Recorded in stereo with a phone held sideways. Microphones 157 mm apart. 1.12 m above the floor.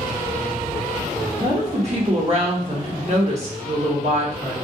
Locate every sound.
1.4 s a woman speaking: 45° right (ahead or behind), 0.9 m